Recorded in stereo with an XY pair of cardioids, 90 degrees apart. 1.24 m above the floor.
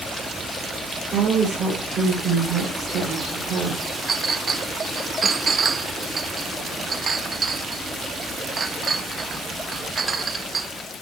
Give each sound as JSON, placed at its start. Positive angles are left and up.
{"t": 1.1, "sound": "a woman speaking", "azimuth_deg": -65, "distance_m": 6.5}
{"t": 4.1, "sound": "a clink", "azimuth_deg": -40, "distance_m": 1.0}